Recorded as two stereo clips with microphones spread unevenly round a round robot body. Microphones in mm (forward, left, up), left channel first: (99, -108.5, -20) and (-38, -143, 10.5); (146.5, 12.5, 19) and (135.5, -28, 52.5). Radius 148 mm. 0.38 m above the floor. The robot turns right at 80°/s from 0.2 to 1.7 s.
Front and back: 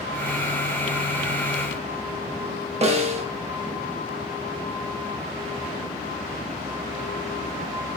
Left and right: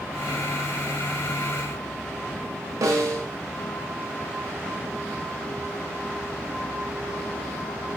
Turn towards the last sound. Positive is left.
turn(degrees=-125)